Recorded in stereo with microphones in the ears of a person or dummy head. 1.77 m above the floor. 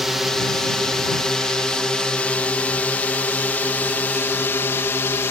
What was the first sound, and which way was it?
A drone, centre (ahead or behind).